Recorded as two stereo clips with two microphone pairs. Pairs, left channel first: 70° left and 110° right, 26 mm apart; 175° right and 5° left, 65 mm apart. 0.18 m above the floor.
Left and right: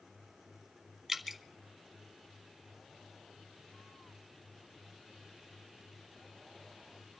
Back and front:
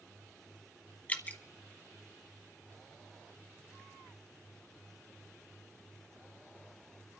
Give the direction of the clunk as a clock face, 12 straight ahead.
No clunk in this recording.